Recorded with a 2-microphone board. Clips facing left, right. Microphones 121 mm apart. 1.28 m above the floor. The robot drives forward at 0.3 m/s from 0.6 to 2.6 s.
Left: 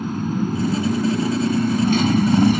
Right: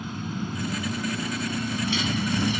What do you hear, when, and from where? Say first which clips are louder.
0.0 s a motorcycle: left 9 dB; 45° left (ahead or behind); by 2.6 s 50° left (ahead or behind)